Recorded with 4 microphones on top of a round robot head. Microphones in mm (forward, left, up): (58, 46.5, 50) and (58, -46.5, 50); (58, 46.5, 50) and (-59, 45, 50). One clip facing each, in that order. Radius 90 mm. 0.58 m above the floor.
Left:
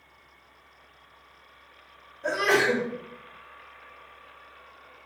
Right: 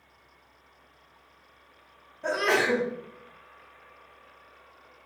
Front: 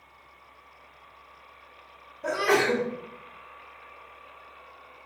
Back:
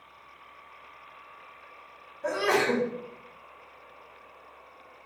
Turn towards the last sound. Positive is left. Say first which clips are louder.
# left 2 dB, front 2 dB
turn(degrees=-80)